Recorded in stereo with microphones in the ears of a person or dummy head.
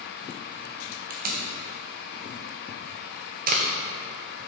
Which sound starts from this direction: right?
Tape being pulled, at 1.1 s.